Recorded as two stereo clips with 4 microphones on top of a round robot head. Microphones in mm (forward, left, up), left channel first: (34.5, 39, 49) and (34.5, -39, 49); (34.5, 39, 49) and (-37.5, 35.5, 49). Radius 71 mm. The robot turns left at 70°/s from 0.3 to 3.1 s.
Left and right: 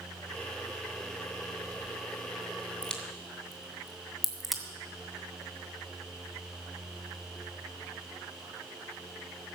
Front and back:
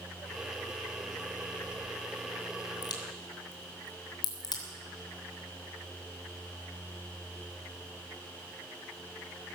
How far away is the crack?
About 3 m.